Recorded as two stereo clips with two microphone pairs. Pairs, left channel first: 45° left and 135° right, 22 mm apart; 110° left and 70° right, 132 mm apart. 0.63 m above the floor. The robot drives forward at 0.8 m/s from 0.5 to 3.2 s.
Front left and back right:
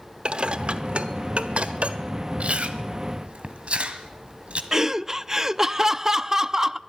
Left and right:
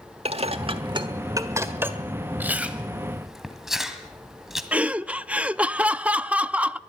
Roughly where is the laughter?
Behind right.